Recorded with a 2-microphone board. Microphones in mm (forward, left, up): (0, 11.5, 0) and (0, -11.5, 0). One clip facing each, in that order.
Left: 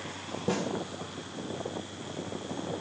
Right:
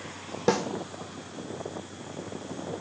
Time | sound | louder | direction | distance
0.5 | a snare drum | right 6 dB | 70° right (ahead or behind) | 1.0 m